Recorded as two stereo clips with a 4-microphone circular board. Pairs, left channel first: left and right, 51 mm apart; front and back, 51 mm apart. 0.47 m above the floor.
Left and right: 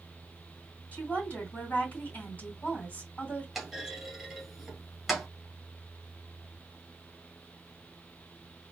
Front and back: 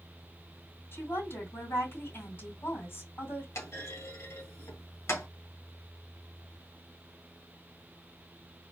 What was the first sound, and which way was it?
A woman speaking, 30° left.